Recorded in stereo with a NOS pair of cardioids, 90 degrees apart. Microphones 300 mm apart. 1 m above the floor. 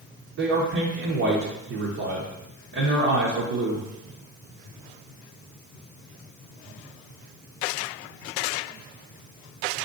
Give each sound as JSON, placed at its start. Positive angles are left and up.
{"t": 0.4, "sound": "a man speaking", "azimuth_deg": -55, "distance_m": 0.8}